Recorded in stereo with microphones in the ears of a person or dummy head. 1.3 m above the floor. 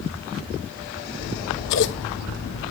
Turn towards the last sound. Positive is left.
turn(degrees=60)  # may be behind; listen again after turning